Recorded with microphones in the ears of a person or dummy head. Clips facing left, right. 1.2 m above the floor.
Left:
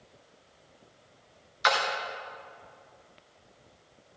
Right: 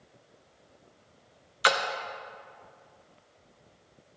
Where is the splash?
40° right (ahead or behind), 0.6 m.